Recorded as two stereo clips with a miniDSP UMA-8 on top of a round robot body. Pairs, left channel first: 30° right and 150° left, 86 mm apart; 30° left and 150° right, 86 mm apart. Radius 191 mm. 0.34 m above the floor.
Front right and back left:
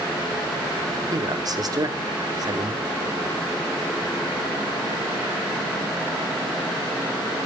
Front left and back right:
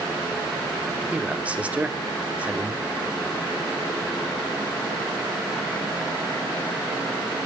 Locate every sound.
1.1 s a man speaking: 140° left, 1.7 m